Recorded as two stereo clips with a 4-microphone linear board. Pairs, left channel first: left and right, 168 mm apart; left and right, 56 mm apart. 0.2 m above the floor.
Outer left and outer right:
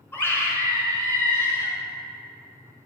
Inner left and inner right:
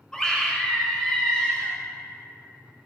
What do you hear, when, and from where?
0.1 s a scream: 15° left (ahead or behind), 2.5 m